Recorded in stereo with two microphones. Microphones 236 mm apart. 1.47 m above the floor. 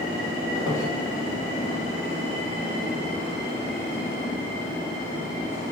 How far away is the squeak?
About 1.1 m.